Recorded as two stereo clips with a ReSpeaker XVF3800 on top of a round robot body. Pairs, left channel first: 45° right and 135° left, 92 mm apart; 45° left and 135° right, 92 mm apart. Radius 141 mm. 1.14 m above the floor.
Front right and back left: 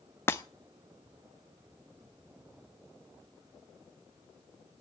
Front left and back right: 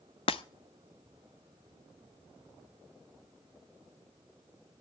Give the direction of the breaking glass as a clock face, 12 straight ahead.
11 o'clock.